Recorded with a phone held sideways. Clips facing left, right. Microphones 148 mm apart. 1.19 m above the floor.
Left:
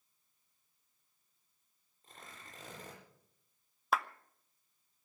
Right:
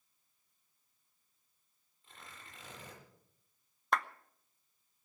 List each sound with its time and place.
2.0 s tearing paper: 45° left (ahead or behind), 8.5 m
3.9 s a clap: 5° left (ahead or behind), 0.6 m